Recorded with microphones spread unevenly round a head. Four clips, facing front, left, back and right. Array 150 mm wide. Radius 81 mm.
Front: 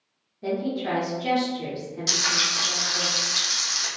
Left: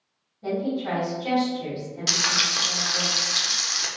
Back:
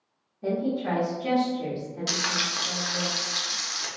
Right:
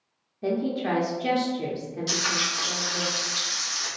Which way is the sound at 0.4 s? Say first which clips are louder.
Right 1 dB, even; 60° right.